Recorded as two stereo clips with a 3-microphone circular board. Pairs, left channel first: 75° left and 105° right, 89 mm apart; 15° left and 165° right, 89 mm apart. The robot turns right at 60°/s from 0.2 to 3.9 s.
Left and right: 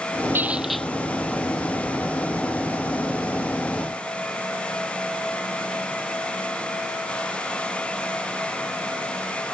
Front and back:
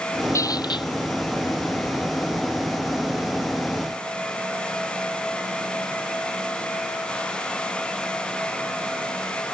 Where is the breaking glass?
No breaking glass in this recording.